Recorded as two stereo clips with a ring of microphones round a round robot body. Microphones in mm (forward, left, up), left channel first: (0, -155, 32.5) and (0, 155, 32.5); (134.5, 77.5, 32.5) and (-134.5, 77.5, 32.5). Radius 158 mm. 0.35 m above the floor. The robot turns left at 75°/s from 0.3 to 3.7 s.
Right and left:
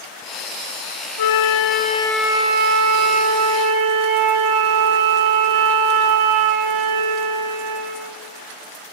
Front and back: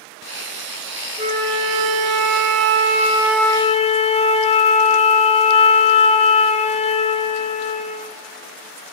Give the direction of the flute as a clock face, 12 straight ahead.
3 o'clock.